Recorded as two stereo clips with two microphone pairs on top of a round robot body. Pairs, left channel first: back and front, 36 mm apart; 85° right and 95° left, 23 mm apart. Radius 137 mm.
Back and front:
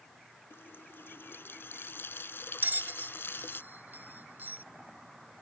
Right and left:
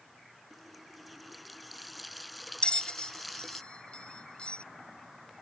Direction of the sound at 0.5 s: 170° right.